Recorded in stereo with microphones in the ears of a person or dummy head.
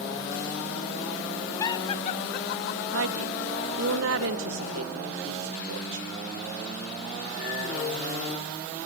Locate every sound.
1.6 s laughter: 25° left (ahead or behind), 1.3 m; by 2.8 s 70° left (ahead or behind), 1.3 m
2.9 s a woman speaking: 80° right, 2.0 m